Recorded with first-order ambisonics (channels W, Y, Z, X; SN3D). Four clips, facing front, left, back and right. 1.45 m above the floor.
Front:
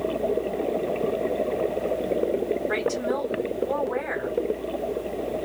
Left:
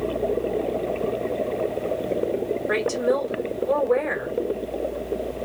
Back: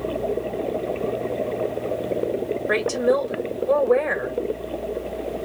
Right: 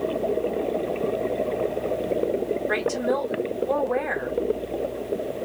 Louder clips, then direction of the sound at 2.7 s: Left 4 dB, back 5 dB; 155° left.